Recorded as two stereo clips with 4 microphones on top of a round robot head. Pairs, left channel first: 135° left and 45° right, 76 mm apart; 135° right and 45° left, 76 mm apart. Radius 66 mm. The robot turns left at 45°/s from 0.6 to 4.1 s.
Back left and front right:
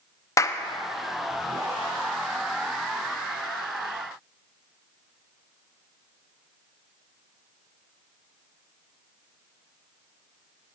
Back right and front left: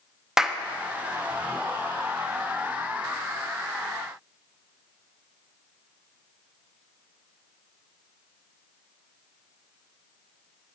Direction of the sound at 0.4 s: 125° left.